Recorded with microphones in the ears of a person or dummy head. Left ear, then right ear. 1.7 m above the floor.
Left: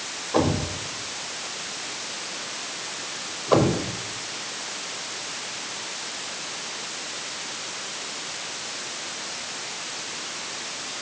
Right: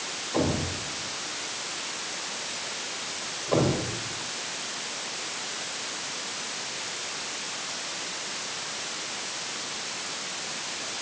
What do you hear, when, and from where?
0.3 s a thud: 55° left (ahead or behind), 3 m